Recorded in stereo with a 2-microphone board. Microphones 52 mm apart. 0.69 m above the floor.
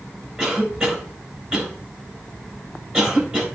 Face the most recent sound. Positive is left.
turn(degrees=-10)  # may be behind; listen again after turning